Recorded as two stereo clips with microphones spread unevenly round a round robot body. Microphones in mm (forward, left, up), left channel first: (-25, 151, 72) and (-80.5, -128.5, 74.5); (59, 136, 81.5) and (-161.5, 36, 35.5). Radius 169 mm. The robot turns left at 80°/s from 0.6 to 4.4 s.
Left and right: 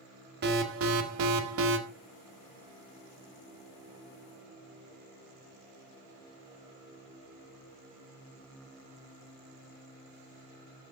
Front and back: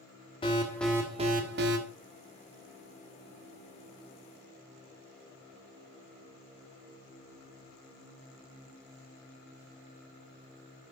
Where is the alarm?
50° right, 1.3 m; by 1.8 s 145° right, 1.3 m.